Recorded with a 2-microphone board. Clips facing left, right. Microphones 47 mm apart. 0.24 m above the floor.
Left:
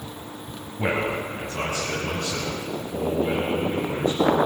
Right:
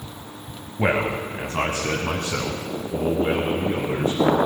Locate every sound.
0.8 s a man speaking: 25° right (ahead or behind), 1.0 m; by 4.4 s 50° right (ahead or behind), 3 m